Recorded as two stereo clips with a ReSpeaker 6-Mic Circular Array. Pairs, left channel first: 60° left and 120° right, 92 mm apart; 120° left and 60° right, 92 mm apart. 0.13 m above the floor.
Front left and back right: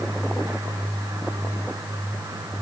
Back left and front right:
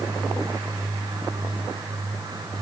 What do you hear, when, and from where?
Only background noise.